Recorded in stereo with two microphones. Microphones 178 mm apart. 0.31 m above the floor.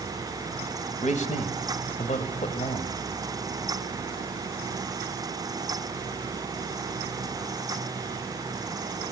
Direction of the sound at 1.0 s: 40° left (ahead or behind).